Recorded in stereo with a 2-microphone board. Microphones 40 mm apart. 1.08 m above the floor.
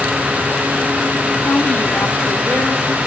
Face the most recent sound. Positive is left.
turn(degrees=65)  # may be behind; listen again after turning